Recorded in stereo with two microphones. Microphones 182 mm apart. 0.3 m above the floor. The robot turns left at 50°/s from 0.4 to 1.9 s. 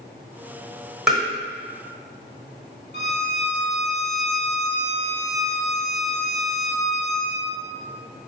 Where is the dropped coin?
I don't hear a dropped coin.